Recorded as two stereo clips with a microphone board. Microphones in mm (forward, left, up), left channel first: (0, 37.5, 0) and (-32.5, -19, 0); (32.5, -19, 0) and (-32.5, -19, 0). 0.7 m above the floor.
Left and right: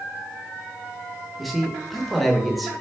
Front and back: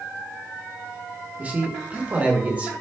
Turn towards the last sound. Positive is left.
turn(degrees=155)